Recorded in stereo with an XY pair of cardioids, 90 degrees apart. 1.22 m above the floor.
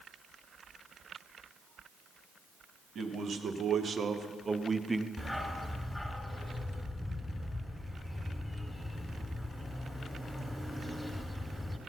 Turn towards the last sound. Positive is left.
turn(degrees=10)